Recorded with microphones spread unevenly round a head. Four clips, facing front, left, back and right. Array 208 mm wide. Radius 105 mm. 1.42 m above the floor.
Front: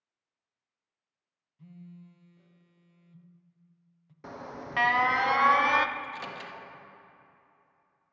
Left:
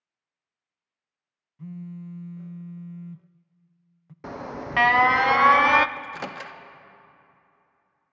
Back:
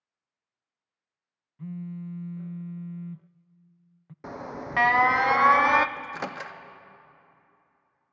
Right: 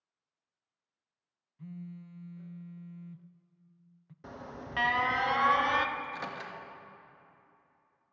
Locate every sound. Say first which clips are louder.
1.6 s a phone buzzing: left 7 dB, back 13 dB; 145° left, 0.6 m
4.2 s an alarm: left 10 dB, back 5 dB; 115° left, 0.9 m
6.0 s a microwave: left 4 dB, back 4 dB; 140° left, 1.5 m